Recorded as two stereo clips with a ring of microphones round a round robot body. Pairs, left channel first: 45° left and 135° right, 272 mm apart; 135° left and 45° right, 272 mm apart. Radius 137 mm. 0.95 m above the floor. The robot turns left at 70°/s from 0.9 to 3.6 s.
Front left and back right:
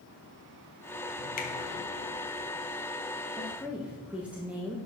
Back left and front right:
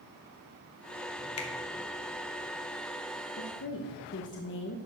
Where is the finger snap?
105° left, 1.3 m; by 1.5 s 95° left, 1.3 m.